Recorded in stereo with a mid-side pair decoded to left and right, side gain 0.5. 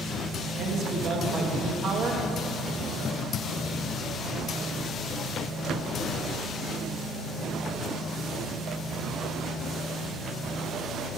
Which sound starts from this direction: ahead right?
A man speaking, at 0.6 s.